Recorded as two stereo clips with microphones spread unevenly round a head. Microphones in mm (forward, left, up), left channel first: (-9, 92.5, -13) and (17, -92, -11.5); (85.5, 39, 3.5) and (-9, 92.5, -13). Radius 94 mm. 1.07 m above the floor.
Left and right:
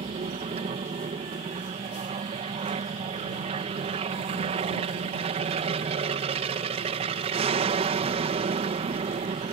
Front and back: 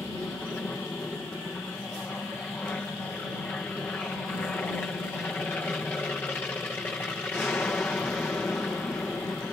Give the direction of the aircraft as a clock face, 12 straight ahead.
4 o'clock.